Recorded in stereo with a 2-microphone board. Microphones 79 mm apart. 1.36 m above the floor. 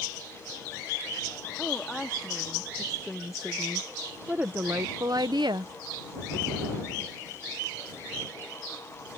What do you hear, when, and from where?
1.6 s a woman speaking: 10° left (ahead or behind); by 5.7 s 70° right (ahead or behind)